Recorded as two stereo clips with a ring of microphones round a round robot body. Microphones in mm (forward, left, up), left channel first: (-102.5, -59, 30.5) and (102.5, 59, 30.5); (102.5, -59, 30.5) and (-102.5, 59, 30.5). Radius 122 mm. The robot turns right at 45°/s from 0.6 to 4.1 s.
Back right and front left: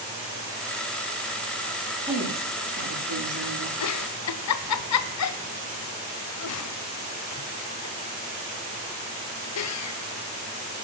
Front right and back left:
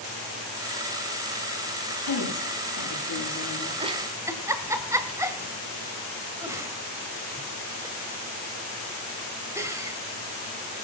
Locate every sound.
2.1 s a woman speaking: 40° right, 9.5 m; by 3.7 s 35° left, 9.5 m
3.8 s a giggle: 145° right, 1.5 m; by 10.0 s 130° right, 1.5 m